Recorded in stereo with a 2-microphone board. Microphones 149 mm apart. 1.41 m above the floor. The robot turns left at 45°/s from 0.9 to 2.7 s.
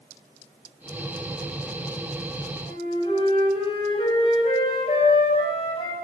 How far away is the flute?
About 9.5 m.